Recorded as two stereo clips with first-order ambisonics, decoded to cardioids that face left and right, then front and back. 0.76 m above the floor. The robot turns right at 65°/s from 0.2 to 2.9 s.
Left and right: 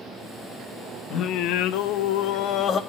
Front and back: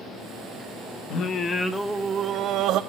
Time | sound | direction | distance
1.1 | singing | 40° left | 1.0 m